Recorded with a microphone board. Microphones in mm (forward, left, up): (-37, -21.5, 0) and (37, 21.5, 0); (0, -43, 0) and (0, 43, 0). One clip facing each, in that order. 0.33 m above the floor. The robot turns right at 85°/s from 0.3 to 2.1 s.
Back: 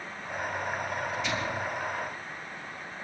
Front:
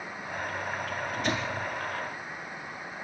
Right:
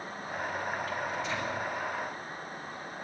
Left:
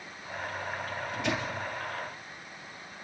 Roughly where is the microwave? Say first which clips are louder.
Front 1 dB, left 1 dB; ahead left.